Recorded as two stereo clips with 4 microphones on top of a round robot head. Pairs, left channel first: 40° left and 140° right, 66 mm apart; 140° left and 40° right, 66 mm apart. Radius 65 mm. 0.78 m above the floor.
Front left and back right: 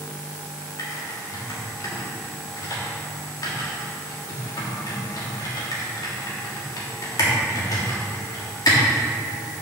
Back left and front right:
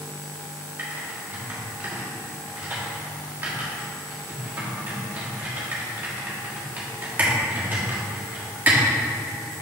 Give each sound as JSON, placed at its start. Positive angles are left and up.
{"t": 0.8, "sound": "typing on a keyboard", "azimuth_deg": 25, "distance_m": 1.6}